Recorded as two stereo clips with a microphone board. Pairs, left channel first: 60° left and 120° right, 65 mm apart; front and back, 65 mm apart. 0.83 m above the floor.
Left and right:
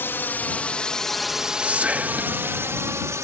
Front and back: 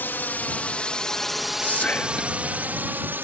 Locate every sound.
0.0 s a drone: 35° left; by 3.2 s 135° right
1.6 s whispering: 60° right